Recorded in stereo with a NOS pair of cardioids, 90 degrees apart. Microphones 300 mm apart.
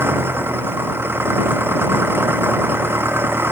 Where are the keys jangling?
I don't hear keys jangling.